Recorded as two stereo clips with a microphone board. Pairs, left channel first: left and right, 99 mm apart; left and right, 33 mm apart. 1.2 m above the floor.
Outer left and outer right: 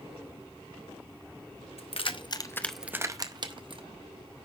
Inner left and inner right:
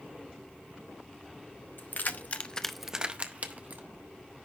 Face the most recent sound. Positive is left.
turn(degrees=-55)  # may be behind; listen again after turning